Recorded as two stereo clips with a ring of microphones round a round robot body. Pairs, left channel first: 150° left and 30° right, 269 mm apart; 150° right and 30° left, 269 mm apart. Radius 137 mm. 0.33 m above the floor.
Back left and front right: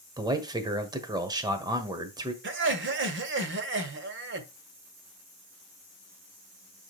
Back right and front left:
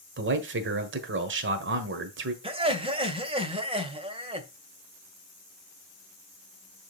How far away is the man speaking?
About 1.6 m.